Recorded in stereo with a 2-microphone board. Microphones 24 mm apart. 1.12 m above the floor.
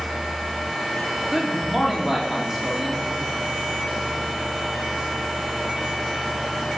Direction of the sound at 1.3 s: 10° right (ahead or behind).